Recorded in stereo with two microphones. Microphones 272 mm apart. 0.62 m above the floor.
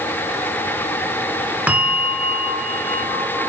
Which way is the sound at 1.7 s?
5° right (ahead or behind).